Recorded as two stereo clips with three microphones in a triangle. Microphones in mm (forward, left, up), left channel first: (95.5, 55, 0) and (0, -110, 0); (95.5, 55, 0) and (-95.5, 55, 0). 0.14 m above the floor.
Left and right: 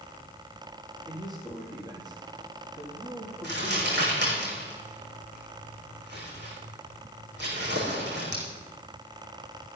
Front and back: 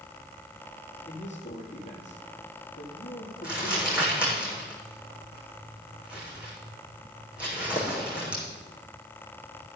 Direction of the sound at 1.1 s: 50° right.